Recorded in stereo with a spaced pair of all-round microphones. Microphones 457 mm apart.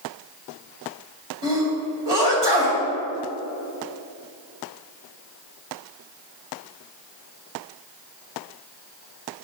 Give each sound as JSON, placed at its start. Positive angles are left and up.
{"t": 1.4, "sound": "a sneeze", "side_deg": -65, "distance_m": 2.5}